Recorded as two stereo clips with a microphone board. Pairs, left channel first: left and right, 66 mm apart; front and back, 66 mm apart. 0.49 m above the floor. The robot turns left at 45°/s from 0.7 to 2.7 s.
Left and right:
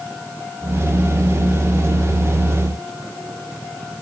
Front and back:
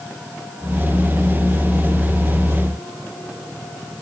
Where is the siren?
No siren in this recording.